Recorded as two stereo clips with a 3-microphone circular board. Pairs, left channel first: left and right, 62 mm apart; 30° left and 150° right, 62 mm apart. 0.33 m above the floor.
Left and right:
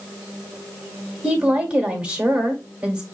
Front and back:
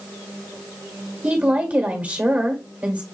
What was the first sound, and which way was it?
A woman speaking, 135° right.